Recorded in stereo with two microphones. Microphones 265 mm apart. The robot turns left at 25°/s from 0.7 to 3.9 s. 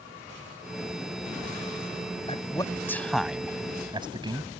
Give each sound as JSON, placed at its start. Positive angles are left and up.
{"t": 2.3, "sound": "a man speaking", "side_deg": 20}